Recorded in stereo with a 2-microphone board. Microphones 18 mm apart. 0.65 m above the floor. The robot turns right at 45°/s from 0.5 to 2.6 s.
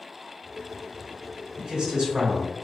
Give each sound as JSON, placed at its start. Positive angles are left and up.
{"t": 1.6, "sound": "a man speaking", "azimuth_deg": -145, "distance_m": 1.5}